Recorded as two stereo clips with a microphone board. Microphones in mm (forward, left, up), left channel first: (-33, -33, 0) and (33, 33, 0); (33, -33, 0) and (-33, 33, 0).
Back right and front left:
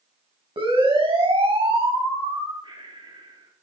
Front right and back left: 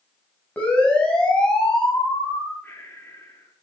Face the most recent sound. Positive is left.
turn(degrees=20)